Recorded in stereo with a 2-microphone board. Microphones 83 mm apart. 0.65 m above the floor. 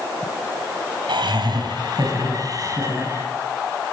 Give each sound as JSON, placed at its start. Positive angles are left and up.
{"t": 1.1, "sound": "laughter", "side_deg": -70, "distance_m": 3.0}